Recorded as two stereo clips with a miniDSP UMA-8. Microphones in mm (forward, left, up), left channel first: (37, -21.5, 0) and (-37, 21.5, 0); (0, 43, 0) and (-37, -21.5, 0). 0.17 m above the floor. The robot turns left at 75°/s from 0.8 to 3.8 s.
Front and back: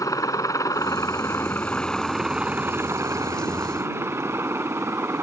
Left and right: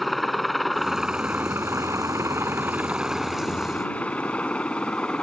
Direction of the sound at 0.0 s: 30° right.